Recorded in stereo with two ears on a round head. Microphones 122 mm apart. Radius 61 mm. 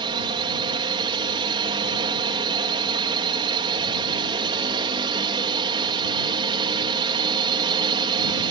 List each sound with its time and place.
0.0 s a drone: 35° right (ahead or behind)